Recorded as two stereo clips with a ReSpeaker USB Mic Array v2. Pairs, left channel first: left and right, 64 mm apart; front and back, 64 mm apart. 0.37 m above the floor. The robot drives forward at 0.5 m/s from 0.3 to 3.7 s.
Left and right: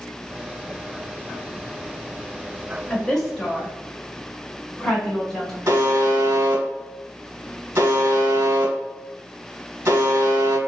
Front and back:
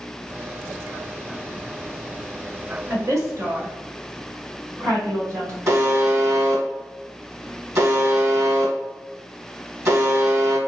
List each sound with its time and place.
2.9 s a woman speaking: 165° left, 1.3 m; by 5.6 s 170° left, 1.6 m
5.7 s a buzzer: 140° right, 1.9 m